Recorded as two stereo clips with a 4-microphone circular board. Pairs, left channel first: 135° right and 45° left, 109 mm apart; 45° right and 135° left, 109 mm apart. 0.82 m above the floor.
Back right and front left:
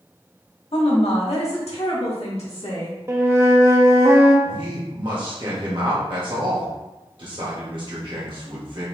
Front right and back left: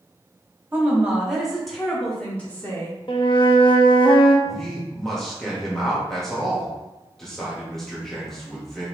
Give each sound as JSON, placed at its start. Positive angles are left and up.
{"t": 0.7, "sound": "a woman speaking", "azimuth_deg": -155, "distance_m": 1.5}
{"t": 3.1, "sound": "a flute", "azimuth_deg": -15, "distance_m": 0.7}
{"t": 4.5, "sound": "a man speaking", "azimuth_deg": 40, "distance_m": 1.4}